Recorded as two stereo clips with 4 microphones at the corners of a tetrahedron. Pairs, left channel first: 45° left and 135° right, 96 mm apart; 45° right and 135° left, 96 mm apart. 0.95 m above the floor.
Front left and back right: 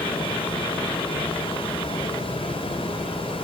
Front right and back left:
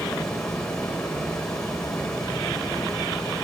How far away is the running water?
About 4 m.